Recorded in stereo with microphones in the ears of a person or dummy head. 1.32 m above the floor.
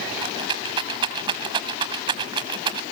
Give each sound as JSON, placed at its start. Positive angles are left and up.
{"t": 0.2, "sound": "a rattle", "side_deg": -30, "distance_m": 1.8}